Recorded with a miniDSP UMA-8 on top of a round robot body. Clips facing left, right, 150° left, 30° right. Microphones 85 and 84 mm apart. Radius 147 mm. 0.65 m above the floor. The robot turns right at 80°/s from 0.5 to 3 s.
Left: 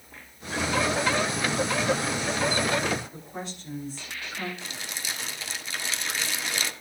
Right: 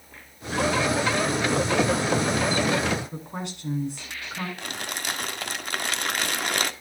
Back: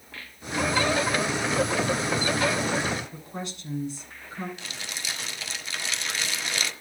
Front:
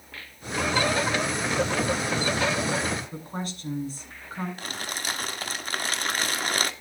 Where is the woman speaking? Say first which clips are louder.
Right 3 dB, front 2 dB; 75° right, 9.5 m.